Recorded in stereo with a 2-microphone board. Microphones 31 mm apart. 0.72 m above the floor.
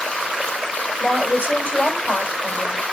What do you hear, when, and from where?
1.0 s a woman speaking: 65° left (ahead or behind), 4 m